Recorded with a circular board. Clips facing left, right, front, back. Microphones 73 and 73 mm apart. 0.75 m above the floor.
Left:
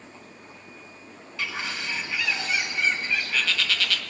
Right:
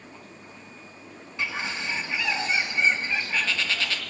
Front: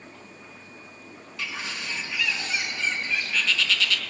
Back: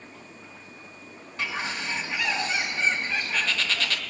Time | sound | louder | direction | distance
1.4 | a bird | right 1 dB, back 4 dB | 145° right | 1.3 m